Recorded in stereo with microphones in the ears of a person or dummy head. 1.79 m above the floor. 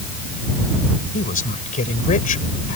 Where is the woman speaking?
40° left (ahead or behind).